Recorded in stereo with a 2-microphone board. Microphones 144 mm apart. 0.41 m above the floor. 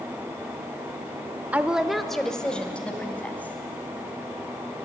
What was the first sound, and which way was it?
A woman speaking, 10° right (ahead or behind).